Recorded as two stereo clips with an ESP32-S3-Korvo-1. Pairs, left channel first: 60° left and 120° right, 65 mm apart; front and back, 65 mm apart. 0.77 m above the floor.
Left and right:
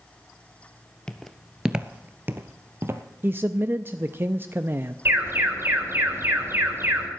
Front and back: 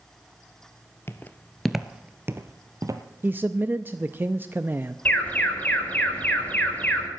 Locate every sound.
1.1 s footsteps: 10° right, 0.9 m; by 3.0 s 165° right, 1.3 m
3.2 s a man speaking: 145° right, 0.5 m
5.0 s an alarm: 65° right, 4.5 m